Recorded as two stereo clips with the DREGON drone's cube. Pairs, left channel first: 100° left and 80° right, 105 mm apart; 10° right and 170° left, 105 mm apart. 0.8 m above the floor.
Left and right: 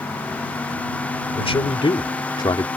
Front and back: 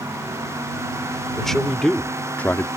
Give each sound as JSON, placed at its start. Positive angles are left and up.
{"t": 1.4, "sound": "a man speaking", "azimuth_deg": 75}